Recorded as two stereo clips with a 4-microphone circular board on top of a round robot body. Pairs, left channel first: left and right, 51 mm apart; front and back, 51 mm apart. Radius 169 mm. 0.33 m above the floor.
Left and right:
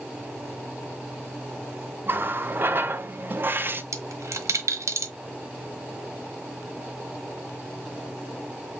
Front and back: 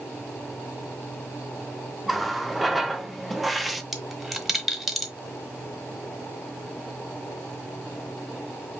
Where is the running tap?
90° right, 0.7 m.